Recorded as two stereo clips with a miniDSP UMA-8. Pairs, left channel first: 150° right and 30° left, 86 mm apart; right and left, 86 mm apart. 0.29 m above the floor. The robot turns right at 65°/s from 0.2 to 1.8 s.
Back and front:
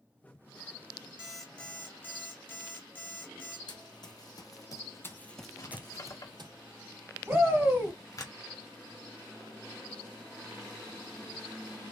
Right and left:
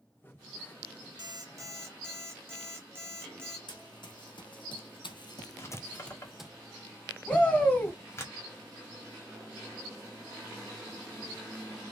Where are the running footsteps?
120° right, 1.3 m; by 6.5 s 10° left, 0.7 m.